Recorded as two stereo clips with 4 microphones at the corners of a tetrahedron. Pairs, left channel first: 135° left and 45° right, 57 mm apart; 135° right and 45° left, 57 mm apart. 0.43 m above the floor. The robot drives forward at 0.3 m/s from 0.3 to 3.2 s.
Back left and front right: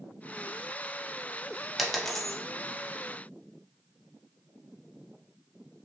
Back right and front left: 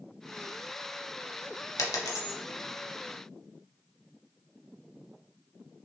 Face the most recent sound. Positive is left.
turn(degrees=-155)